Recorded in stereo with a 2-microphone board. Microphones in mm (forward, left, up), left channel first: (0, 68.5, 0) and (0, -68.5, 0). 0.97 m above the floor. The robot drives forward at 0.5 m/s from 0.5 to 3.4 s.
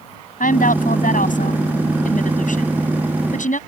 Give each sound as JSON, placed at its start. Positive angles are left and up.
{"t": 0.4, "sound": "a woman speaking", "side_deg": 75}